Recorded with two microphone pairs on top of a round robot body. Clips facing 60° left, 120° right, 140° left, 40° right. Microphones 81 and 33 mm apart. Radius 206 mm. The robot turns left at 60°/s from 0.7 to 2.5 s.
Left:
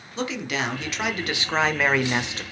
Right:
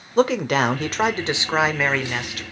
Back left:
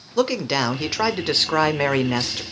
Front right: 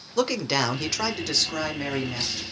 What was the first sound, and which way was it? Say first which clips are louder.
A man speaking: right 10 dB, back left 3 dB; 140° right.